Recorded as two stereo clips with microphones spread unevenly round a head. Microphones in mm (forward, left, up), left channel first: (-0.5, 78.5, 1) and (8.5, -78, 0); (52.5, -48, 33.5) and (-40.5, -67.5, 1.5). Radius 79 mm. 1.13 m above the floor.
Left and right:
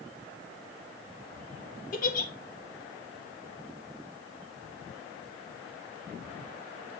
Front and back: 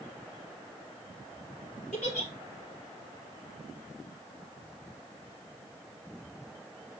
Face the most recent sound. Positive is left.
turn(degrees=55)